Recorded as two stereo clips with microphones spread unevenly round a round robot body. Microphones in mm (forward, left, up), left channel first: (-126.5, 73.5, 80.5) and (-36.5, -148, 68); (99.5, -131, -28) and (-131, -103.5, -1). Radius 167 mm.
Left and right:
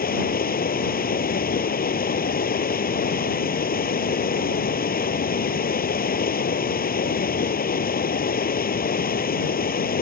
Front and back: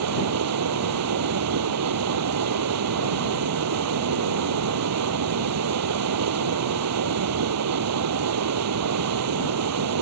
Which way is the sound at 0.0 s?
165° left.